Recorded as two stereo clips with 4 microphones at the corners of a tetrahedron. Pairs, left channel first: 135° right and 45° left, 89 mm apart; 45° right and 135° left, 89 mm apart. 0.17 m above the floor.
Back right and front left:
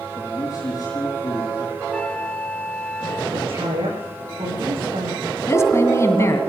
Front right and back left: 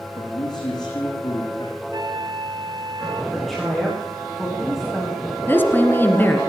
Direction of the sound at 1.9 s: 145° left.